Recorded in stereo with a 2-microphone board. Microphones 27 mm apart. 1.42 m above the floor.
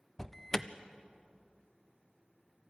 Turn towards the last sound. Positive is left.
turn(degrees=20)  # may be behind; listen again after turning